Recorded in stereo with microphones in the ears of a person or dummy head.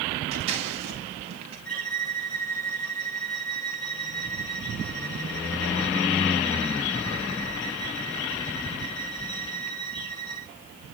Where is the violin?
10° left (ahead or behind), 9 m.